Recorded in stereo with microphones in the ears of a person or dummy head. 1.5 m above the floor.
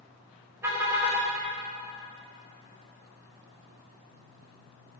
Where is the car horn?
20° right (ahead or behind), 4 m.